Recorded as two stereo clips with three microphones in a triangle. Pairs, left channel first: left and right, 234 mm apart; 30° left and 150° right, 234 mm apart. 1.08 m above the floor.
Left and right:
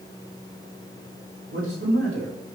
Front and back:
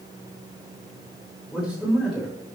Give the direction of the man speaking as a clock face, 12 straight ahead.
2 o'clock.